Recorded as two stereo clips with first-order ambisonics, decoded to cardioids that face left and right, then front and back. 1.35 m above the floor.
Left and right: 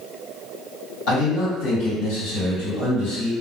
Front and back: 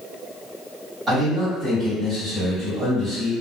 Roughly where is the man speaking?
Left.